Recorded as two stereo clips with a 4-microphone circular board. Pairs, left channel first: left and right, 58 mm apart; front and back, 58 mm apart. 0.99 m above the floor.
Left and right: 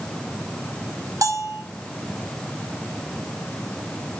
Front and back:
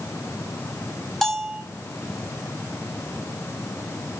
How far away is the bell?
About 5.5 m.